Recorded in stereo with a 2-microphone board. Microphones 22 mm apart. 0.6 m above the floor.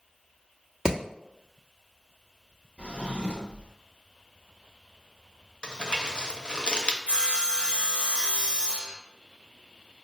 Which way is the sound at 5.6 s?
40° left (ahead or behind).